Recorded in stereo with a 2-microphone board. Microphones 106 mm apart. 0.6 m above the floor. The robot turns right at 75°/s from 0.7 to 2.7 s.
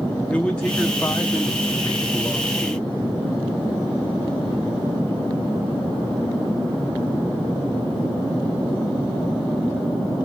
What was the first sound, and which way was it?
A man speaking, 10° left (ahead or behind).